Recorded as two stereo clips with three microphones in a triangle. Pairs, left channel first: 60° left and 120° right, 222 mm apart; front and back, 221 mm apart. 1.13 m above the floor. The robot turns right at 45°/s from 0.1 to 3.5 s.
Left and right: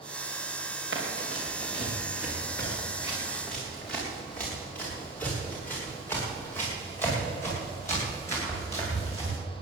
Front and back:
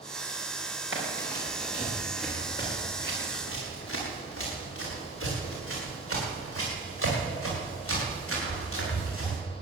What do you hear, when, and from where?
0.9 s running footsteps: 155° right, 6 m; by 9.4 s 15° right, 11.5 m